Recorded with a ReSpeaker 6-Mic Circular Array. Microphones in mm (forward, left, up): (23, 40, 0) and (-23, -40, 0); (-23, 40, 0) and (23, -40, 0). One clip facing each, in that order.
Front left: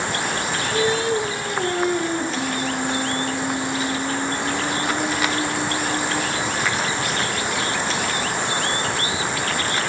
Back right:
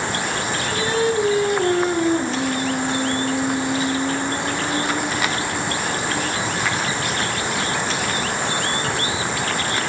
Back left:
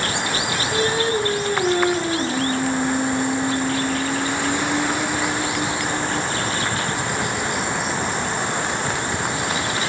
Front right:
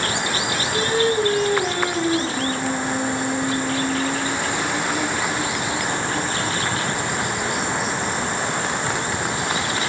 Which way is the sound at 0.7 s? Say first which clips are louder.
Back right 1 dB, front right 1 dB; 175° right.